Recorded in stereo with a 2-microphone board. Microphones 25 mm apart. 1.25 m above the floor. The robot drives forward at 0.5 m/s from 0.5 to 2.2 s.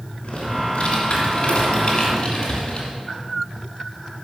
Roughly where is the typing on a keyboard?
Left.